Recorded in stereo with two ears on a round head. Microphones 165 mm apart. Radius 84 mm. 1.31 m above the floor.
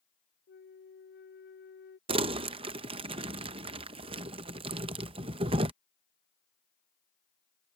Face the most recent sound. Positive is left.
turn(degrees=-30)  # may be behind; listen again after turning